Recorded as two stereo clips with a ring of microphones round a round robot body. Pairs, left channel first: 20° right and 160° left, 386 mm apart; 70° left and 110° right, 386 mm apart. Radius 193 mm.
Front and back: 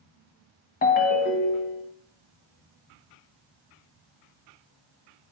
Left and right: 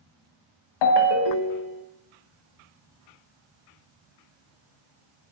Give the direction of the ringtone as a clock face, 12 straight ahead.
11 o'clock.